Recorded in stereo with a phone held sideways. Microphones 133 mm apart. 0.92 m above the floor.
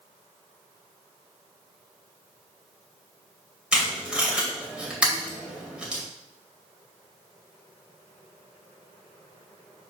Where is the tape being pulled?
5° right (ahead or behind), 2.5 m.